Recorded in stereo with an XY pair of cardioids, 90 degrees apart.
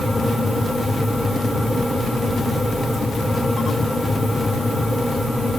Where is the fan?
10° left, 1.8 m.